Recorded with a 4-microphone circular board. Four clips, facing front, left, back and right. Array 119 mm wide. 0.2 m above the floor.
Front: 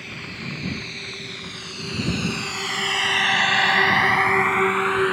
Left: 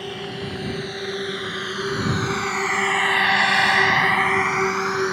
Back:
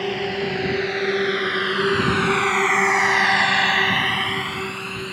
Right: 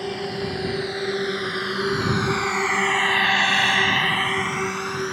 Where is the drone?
165° right; by 5.1 s 25° left.